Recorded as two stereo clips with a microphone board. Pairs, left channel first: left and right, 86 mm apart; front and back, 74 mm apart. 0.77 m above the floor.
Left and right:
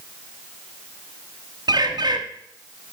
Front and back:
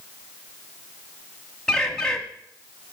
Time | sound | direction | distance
1.7 | a bird | 80° right | 0.9 m